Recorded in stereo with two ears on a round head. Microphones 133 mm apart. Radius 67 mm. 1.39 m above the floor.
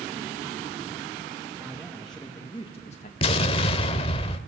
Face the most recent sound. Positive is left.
turn(degrees=40)  # may be behind; listen again after turning